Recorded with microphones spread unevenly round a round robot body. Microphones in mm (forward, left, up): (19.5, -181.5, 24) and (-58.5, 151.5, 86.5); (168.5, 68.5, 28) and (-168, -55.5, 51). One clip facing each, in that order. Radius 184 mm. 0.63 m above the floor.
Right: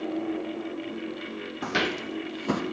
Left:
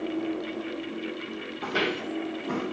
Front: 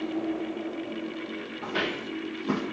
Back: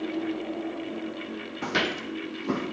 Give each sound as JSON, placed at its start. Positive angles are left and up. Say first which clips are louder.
{"t": 1.6, "sound": "footsteps", "louder": "left 1 dB, back 2 dB", "azimuth_deg": -130, "distance_m": 1.4}